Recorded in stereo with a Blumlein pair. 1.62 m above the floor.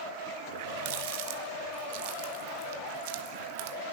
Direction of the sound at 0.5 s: 50° right.